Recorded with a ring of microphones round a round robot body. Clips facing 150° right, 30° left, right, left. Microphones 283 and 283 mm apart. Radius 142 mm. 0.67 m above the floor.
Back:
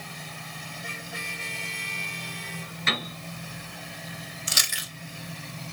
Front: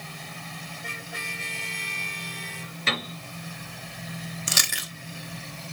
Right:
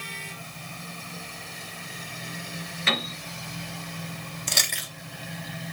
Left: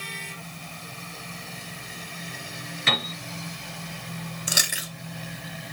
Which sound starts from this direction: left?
A piano, at 2.9 s.